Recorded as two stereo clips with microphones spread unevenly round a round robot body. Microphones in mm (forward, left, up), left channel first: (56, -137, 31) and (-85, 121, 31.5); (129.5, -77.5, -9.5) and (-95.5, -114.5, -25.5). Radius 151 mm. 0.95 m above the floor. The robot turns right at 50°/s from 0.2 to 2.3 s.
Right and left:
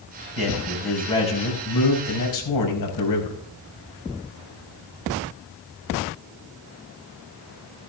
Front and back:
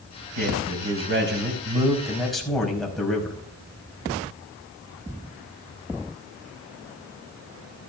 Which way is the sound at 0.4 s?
175° right.